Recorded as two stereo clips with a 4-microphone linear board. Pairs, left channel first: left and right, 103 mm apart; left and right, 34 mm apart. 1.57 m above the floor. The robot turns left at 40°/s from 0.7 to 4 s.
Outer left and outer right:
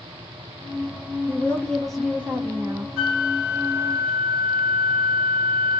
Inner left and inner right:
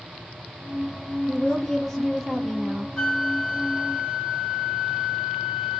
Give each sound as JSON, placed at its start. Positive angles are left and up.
{"t": 1.3, "sound": "a woman speaking", "azimuth_deg": 25, "distance_m": 0.8}
{"t": 3.0, "sound": "a flute", "azimuth_deg": 0, "distance_m": 2.0}